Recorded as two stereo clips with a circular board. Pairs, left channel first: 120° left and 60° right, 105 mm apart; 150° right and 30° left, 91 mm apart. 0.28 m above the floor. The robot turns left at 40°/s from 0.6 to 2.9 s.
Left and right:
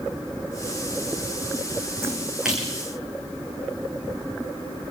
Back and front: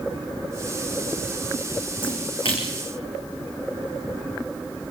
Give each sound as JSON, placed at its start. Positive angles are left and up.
{"t": 2.0, "sound": "a splash", "azimuth_deg": -125, "distance_m": 5.0}